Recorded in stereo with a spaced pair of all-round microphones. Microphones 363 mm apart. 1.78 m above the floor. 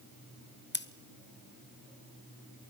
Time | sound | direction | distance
0.7 | scissors | 25° left (ahead or behind) | 0.8 m